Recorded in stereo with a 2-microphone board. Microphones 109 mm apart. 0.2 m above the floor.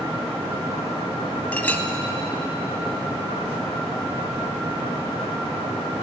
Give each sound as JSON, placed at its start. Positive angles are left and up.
{"t": 1.5, "sound": "a clink", "side_deg": 15, "distance_m": 0.6}